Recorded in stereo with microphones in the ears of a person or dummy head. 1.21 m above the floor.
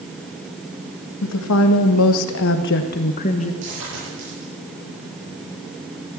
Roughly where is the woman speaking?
Left.